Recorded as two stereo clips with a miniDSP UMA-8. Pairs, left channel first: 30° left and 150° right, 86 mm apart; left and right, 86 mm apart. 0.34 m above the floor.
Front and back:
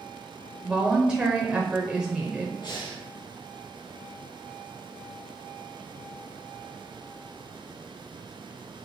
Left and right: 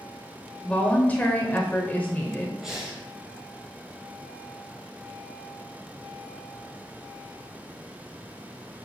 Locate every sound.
0.6 s a woman speaking: 140° left, 1.0 m
2.6 s breathing: 5° right, 3 m